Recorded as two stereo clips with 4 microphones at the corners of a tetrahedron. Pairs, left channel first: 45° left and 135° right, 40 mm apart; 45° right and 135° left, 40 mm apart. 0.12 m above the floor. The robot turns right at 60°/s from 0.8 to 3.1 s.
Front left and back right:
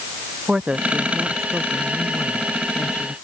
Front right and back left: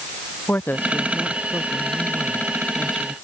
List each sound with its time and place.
0.5 s a woman speaking: 75° right; by 3.1 s 65° left